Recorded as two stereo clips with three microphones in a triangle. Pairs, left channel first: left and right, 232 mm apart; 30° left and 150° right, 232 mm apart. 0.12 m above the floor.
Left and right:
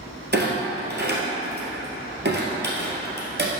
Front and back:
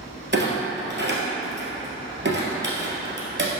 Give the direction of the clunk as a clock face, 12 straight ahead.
4 o'clock.